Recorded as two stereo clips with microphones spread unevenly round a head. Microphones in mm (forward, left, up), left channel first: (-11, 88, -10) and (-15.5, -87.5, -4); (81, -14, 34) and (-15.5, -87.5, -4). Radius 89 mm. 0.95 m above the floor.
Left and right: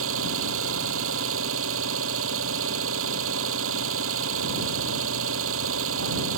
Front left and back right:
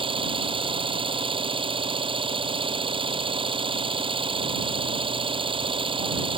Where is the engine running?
95° right.